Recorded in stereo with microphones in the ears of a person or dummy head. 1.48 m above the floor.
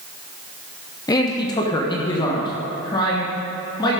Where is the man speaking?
20° left (ahead or behind), 0.8 m; by 4.0 s 25° left (ahead or behind), 2.5 m.